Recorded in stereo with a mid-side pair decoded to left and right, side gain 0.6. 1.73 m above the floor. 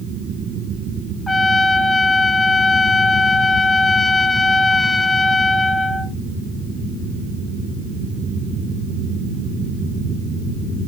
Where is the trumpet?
15° left, 0.6 m.